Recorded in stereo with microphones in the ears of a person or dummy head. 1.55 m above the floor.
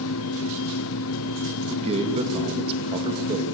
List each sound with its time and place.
0.0 s a fan: 75° left (ahead or behind), 1.1 m
1.7 s a man speaking: 35° right (ahead or behind), 2.5 m